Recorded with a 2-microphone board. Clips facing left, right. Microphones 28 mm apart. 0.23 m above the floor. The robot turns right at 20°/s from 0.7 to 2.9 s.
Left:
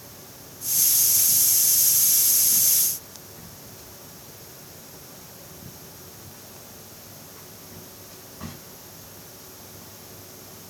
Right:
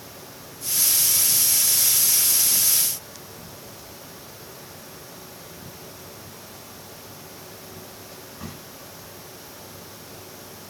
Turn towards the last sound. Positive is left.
No sound to turn to.